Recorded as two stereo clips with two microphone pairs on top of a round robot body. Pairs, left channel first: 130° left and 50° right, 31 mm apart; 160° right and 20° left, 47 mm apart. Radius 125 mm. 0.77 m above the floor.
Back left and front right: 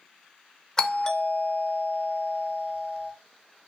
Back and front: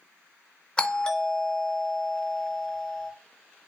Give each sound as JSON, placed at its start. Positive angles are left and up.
{"t": 0.8, "sound": "a doorbell", "azimuth_deg": 135, "distance_m": 0.9}